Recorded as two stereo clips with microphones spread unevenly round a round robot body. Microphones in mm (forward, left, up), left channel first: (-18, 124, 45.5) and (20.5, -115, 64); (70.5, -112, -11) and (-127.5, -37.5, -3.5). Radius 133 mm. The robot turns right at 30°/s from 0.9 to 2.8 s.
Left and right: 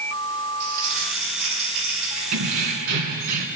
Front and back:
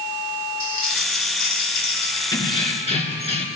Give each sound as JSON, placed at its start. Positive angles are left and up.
{"t": 0.6, "sound": "crumpling", "azimuth_deg": -65, "distance_m": 7.5}
{"t": 2.3, "sound": "keys jangling", "azimuth_deg": -95, "distance_m": 2.5}